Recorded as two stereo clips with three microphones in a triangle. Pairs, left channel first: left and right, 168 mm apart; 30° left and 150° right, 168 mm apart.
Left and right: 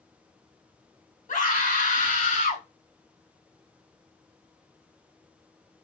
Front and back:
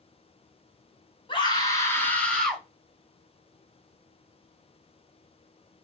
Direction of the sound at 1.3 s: 80° left.